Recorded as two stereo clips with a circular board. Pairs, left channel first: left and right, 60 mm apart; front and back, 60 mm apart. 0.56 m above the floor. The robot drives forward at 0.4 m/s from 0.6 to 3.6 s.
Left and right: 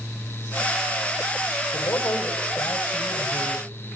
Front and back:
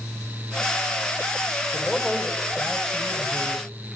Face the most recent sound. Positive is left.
turn(degrees=105)